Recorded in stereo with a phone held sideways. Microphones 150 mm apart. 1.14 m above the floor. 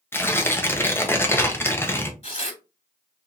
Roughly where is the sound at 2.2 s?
Left.